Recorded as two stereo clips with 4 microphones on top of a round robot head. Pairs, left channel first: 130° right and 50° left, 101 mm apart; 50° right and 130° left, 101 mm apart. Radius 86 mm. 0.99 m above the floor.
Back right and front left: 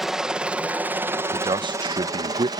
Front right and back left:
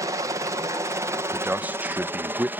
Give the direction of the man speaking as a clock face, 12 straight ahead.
10 o'clock.